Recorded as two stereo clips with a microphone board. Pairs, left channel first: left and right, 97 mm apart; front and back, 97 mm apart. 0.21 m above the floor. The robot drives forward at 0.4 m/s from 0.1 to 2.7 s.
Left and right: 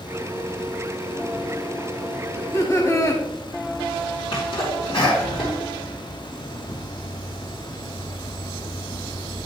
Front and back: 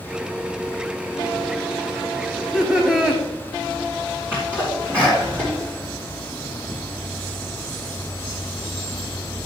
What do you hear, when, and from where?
2.3 s laughter: 90° left, 1.1 m; by 3.2 s 105° left, 1.1 m
4.3 s a sneeze: 115° left, 3 m